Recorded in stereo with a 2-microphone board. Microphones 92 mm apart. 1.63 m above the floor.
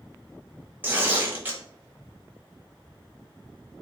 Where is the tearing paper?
20° right (ahead or behind), 0.7 m.